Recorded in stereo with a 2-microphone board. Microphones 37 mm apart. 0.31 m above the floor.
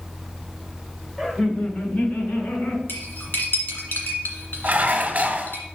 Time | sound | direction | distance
1.2 | laughter | 5° left (ahead or behind) | 0.9 m
2.9 | cutlery clinking | 65° left (ahead or behind) | 1.8 m
4.6 | dishes clattering | 45° right (ahead or behind) | 0.9 m